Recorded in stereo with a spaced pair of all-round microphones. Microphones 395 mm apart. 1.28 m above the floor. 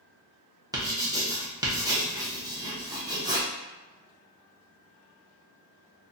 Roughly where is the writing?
Centre.